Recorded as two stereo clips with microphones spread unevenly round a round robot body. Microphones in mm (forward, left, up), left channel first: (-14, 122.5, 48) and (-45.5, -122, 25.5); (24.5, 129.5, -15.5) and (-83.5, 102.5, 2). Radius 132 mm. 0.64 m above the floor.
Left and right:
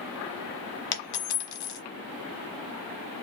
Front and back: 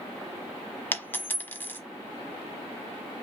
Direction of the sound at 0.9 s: 90° left.